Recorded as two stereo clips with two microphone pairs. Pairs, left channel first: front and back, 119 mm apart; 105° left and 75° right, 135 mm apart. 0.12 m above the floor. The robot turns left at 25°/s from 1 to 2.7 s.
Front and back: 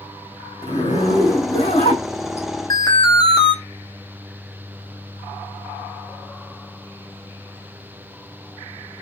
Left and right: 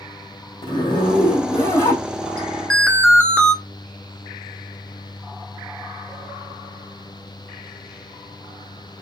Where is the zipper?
60° left, 3 m; by 2.5 s 20° left, 3 m.